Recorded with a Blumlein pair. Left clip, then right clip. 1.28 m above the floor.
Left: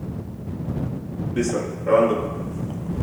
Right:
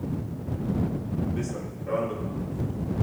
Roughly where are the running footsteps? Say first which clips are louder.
Left 10 dB; ahead left.